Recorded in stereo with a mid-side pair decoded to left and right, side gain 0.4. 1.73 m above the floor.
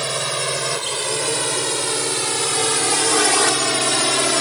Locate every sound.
0.0 s a drone: 15° right; by 4.4 s 10° left